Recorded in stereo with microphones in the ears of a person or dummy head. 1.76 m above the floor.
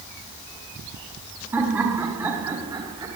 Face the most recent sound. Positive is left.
turn(degrees=-25)  # may be behind; listen again after turning